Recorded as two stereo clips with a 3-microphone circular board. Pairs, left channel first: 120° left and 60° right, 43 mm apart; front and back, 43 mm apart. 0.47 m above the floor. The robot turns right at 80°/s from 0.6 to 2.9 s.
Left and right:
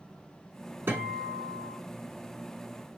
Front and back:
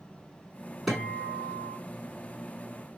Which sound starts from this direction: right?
A guitar, at 0.9 s.